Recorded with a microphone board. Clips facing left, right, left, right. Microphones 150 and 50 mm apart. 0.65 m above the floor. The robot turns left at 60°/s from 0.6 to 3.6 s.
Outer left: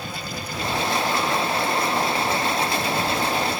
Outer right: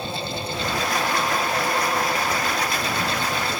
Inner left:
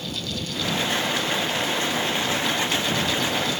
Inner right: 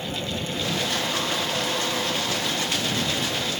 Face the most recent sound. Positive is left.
No sound to turn to.